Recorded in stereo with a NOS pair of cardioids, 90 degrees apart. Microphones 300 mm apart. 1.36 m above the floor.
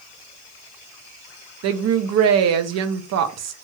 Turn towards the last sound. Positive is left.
turn(degrees=-60)